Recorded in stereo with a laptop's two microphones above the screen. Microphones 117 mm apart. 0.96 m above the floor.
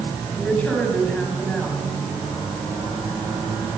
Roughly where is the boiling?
I don't hear boiling.